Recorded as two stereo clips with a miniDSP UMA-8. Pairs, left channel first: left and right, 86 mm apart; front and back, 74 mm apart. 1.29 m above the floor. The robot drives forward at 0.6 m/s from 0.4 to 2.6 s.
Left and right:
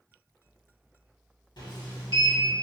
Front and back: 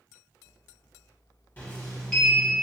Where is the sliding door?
65° left, 1.4 m; by 2.5 s 90° left, 1.2 m.